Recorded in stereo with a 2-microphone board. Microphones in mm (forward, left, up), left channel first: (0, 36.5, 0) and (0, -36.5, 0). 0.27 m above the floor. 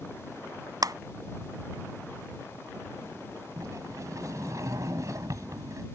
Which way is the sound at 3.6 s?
50° right (ahead or behind).